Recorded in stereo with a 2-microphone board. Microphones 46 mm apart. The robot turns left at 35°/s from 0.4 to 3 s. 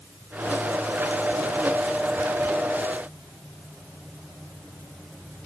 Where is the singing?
I don't hear singing.